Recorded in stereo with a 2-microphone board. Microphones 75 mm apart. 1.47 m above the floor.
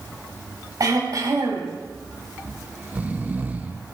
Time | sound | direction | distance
0.8 | throat clearing | 60° right (ahead or behind) | 5.5 m
2.4 | snoring | 25° right (ahead or behind) | 1.0 m